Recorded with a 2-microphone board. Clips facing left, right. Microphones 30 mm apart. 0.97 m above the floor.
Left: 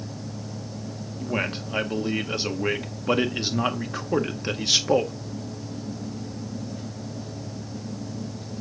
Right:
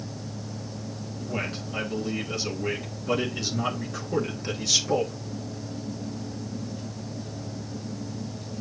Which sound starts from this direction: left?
A man speaking, at 1.2 s.